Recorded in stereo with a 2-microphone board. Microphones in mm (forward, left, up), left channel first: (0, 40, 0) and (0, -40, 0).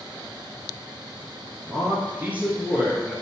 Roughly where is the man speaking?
Right.